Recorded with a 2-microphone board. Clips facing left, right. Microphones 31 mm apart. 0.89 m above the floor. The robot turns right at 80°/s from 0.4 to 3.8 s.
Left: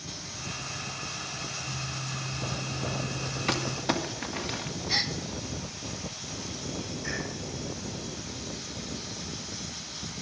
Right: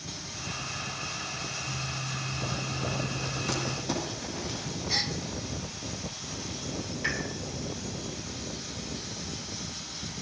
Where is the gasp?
15° left (ahead or behind), 0.9 m.